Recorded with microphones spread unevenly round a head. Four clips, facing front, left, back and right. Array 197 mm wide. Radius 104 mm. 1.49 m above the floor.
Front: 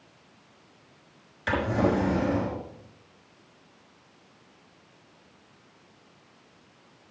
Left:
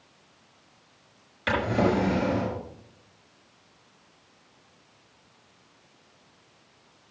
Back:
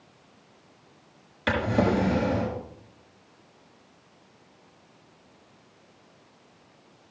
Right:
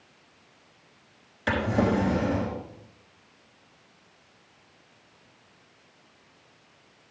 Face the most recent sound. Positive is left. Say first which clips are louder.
# left 1 dB, back 1 dB
turn(degrees=-160)